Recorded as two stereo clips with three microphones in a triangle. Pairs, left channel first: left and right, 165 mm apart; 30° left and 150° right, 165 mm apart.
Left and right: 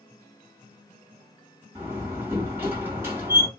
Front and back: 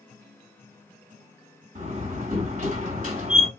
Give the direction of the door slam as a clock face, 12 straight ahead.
6 o'clock.